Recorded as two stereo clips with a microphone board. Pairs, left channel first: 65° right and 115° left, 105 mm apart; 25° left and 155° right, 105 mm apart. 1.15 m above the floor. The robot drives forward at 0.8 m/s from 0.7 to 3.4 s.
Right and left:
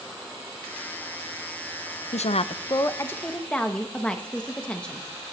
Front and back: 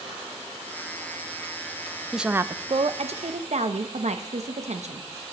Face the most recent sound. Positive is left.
turn(degrees=-145)